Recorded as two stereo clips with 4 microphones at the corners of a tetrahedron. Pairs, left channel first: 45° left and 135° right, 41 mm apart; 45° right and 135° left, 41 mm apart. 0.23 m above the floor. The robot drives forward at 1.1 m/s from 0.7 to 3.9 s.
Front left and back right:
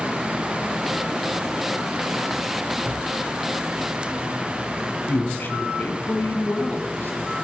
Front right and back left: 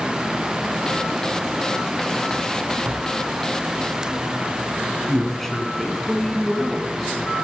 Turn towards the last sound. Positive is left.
turn(degrees=40)